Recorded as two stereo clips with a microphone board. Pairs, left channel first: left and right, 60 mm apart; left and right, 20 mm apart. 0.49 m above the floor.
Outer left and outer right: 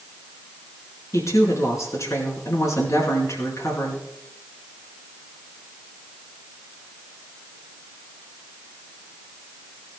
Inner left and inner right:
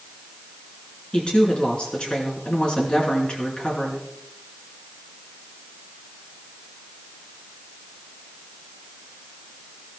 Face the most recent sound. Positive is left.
turn(degrees=60)  # may be behind; listen again after turning